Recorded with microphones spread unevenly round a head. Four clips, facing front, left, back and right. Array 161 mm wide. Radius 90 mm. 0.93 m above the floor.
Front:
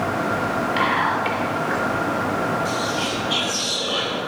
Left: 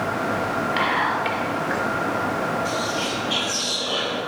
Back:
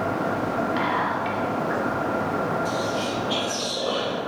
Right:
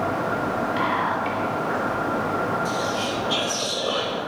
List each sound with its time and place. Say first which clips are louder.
0.8 s whispering: left 2 dB, front 3 dB; 70° left, 4 m
2.6 s whispering: even, front 2 dB; 140° right, 3.5 m